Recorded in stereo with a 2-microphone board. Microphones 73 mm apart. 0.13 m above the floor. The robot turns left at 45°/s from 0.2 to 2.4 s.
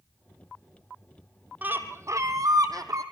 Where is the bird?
25° right, 1.9 m; by 3.0 s 60° right, 1.9 m.